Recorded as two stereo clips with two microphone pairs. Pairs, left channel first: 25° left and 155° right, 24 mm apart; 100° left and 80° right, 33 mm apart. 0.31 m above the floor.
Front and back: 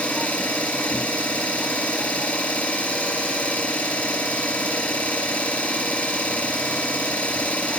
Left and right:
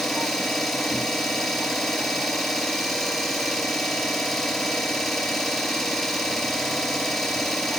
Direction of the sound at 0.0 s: 30° left.